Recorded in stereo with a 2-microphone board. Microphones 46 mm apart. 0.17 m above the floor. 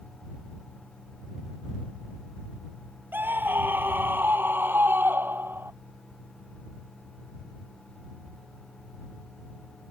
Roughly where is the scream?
Right.